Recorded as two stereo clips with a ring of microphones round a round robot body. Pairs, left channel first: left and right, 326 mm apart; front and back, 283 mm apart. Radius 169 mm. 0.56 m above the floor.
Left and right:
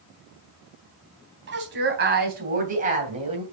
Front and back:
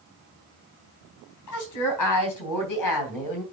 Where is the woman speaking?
40° right, 3.5 m; by 3.4 s 20° right, 2.5 m.